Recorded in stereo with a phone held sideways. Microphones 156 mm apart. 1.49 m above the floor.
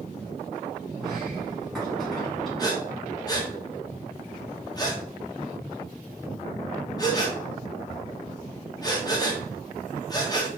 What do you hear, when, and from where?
1.0 s a sliding door: centre (ahead or behind), 2 m
2.6 s breathing: 25° left (ahead or behind), 0.9 m